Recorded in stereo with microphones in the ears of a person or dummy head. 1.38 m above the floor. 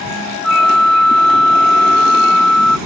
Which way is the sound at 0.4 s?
Centre (ahead or behind).